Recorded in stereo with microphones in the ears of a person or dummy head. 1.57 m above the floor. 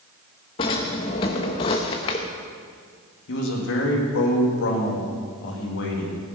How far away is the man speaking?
About 2.5 m.